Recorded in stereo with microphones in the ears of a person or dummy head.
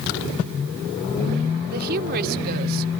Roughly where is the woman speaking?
Right.